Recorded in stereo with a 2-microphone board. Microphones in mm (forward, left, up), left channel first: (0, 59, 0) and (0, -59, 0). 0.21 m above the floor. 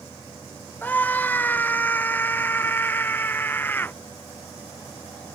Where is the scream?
15° left (ahead or behind).